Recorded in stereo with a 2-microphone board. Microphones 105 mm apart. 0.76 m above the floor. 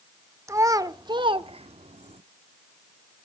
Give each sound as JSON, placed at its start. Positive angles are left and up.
{"t": 0.5, "sound": "a child speaking", "side_deg": -30, "distance_m": 1.0}